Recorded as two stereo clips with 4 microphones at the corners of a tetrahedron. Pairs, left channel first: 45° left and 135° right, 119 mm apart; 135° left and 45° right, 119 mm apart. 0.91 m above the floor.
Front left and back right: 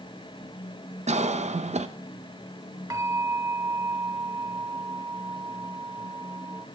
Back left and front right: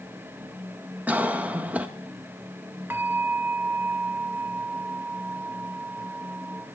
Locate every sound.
1.1 s a cough: 120° right, 0.5 m
2.9 s a bell: 105° right, 0.7 m